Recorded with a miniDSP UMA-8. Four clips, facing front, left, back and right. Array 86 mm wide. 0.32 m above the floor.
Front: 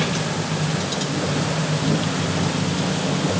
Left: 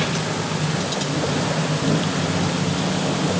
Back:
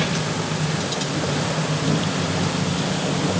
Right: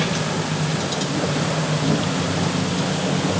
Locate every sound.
Only background noise.